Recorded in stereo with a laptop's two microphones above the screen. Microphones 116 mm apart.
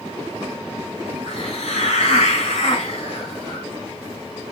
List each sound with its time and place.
1.3 s a hiss: 75° left (ahead or behind), 1.9 m